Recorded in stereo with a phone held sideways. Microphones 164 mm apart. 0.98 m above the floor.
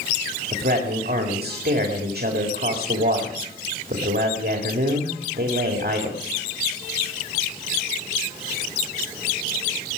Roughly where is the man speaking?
Right.